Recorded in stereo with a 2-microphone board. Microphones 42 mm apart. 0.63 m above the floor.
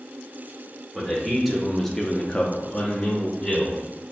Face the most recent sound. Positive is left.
turn(degrees=20)  # may be behind; listen again after turning